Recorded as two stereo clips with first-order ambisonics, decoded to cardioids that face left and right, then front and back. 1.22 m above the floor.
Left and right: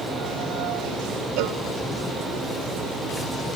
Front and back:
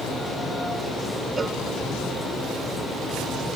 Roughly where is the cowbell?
Right.